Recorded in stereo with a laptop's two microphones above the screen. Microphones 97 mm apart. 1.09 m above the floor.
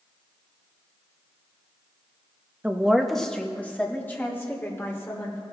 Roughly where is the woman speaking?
Centre.